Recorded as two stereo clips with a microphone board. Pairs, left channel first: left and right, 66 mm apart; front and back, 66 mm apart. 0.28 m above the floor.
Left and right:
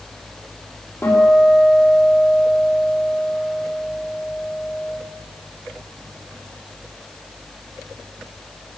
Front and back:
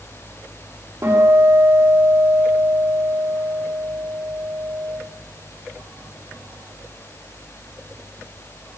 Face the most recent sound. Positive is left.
turn(degrees=140)